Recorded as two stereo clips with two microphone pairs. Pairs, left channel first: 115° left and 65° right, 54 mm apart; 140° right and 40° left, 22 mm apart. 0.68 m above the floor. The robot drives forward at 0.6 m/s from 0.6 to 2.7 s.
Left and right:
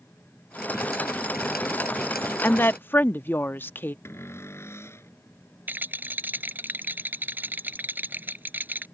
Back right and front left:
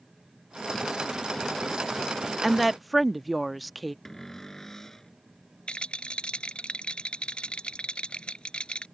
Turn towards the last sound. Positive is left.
turn(degrees=-110)